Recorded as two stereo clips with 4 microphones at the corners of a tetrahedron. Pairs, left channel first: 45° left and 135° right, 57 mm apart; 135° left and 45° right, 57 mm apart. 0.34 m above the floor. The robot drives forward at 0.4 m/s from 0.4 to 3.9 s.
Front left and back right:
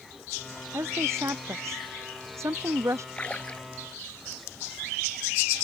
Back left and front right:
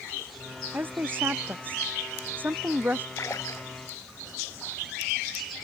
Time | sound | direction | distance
0.7 | a woman speaking | 100° right | ?
3.2 | a splash | 110° left | ?